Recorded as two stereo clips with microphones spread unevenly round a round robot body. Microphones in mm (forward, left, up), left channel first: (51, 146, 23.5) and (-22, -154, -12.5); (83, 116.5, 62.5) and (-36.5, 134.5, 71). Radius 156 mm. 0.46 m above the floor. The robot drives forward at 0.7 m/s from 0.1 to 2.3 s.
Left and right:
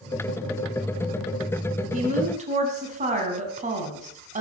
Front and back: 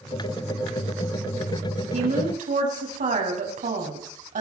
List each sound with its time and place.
1.9 s a woman speaking: 170° right, 4 m